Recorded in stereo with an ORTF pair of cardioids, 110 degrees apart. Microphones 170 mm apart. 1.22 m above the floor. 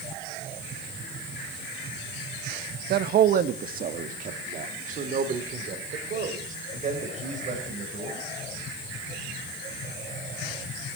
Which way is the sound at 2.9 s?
60° right.